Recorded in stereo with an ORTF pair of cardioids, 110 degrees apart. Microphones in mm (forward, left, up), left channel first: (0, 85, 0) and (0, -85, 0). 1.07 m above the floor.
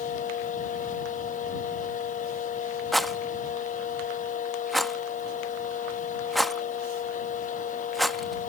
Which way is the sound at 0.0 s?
50° left.